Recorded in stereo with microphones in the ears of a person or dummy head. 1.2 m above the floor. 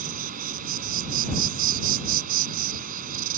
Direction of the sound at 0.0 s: 45° right (ahead or behind).